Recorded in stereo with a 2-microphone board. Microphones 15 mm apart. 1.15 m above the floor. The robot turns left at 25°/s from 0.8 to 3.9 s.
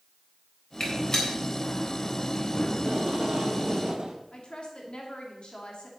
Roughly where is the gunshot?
Left.